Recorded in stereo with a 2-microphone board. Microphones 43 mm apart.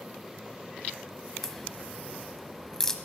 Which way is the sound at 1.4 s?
15° left (ahead or behind).